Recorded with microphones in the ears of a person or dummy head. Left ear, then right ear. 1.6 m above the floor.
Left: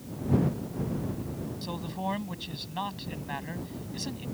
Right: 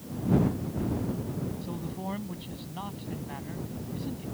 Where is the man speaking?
50° left (ahead or behind).